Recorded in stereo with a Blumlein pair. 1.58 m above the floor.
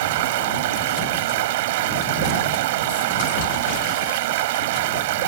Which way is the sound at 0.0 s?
50° right.